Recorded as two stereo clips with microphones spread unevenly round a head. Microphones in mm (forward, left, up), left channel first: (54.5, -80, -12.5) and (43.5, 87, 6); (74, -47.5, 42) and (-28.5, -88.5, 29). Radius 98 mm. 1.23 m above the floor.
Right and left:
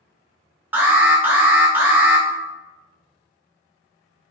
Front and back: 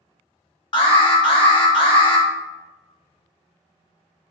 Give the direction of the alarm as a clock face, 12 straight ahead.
12 o'clock.